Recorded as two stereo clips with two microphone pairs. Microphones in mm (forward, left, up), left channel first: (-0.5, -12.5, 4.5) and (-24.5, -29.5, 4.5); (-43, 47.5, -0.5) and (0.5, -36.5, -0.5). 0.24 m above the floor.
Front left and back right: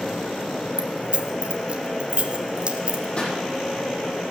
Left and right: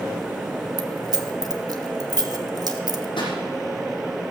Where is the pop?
85° left, 7 m.